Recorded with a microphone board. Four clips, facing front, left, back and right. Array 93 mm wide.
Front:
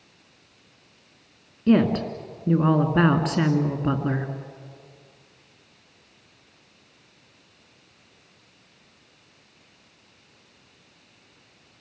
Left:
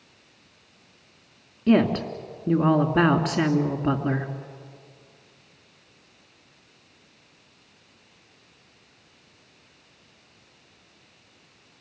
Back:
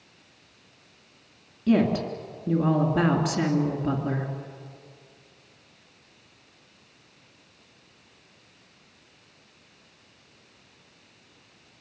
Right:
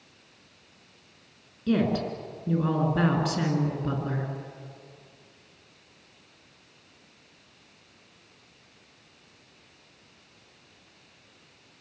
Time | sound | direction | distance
1.7 | a woman speaking | 50° left | 2 m